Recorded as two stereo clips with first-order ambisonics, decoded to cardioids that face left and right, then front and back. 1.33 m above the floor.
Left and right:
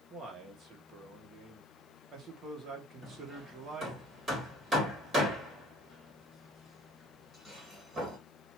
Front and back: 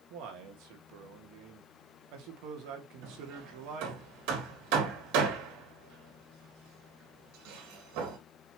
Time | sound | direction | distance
0.1 | a man speaking | 155° right | 2.5 m
3.0 | hammering | 165° right | 3 m